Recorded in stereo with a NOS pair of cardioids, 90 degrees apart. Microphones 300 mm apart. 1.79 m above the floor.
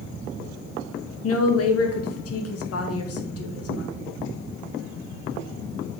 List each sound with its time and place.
1.2 s a woman speaking: 55° left, 2 m